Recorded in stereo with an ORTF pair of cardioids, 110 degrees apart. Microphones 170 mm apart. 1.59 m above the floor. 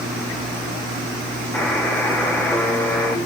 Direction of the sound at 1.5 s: 10° left.